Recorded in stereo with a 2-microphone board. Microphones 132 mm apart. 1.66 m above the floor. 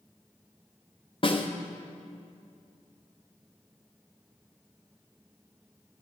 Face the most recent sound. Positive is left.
turn(degrees=40)  # may be behind; listen again after turning